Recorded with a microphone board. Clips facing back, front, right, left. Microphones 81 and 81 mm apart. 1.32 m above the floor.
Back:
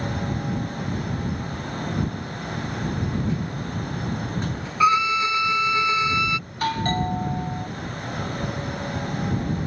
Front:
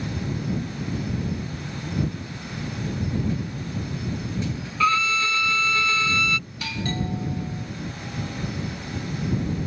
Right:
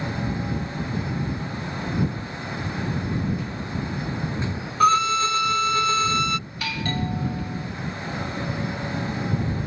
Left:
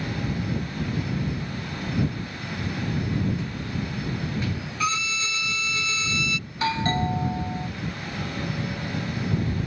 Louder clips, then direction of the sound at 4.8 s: Back 3 dB, right 10 dB; 110° right.